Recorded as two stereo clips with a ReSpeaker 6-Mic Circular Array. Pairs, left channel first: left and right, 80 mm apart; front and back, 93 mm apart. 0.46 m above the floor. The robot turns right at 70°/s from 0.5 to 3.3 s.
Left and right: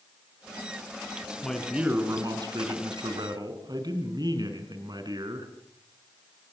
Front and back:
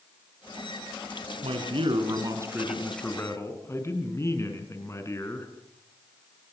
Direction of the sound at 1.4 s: 170° left.